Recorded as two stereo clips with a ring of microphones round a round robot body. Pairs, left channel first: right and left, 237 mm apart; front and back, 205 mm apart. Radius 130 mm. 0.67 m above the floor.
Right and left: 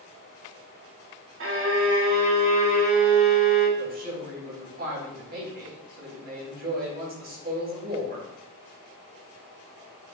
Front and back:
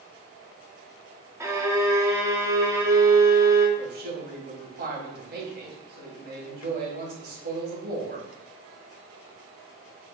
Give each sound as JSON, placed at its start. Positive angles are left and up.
{"t": 1.4, "sound": "a violin", "azimuth_deg": 105, "distance_m": 1.7}
{"t": 3.8, "sound": "a man speaking", "azimuth_deg": 145, "distance_m": 3.5}